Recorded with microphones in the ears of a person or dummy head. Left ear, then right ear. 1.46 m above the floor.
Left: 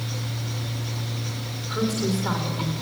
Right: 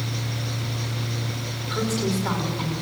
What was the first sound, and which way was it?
A woman speaking, 10° right (ahead or behind).